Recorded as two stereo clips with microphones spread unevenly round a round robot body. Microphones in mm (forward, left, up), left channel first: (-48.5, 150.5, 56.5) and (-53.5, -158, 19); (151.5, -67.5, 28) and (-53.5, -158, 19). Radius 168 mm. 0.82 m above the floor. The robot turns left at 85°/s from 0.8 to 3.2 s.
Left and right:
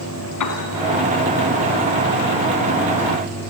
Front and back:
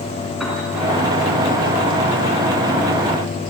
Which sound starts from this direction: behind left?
A piano, at 0.4 s.